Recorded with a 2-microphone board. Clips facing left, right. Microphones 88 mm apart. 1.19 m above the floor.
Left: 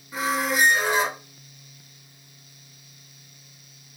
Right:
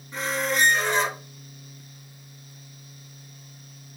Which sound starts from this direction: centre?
A squeak, at 0.1 s.